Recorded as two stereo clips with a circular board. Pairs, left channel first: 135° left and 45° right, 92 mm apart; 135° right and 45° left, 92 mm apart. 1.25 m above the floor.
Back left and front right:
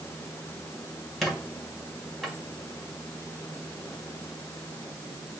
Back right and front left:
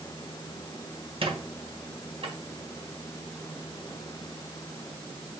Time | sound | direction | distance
1.2 | a squeak | 45° left | 1.5 m